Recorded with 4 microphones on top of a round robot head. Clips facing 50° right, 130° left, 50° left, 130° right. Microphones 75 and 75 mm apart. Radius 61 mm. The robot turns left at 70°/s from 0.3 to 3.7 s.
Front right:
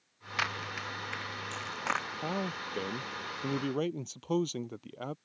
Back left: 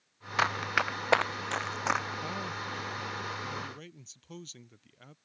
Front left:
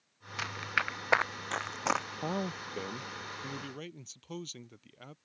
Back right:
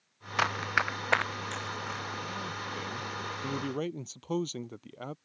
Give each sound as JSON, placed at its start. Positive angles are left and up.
{"t": 0.4, "sound": "running footsteps", "azimuth_deg": -170}
{"t": 2.2, "sound": "a man speaking", "azimuth_deg": 25}